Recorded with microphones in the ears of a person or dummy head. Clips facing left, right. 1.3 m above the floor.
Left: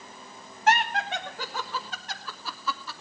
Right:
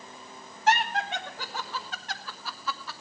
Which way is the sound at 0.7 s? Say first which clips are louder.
Left 1 dB; 40° left (ahead or behind).